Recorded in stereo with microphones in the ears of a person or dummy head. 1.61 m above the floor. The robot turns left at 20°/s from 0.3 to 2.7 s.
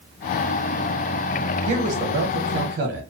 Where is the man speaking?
40° right (ahead or behind), 1.1 m; by 3.0 s 55° right (ahead or behind), 1.1 m.